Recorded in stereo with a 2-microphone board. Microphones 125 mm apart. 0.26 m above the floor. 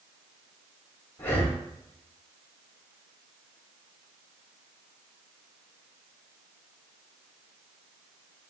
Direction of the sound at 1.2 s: 20° left (ahead or behind).